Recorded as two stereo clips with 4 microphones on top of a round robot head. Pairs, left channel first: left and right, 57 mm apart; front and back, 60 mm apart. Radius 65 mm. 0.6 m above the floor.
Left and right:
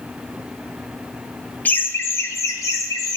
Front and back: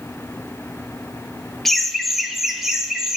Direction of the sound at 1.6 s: 85° left.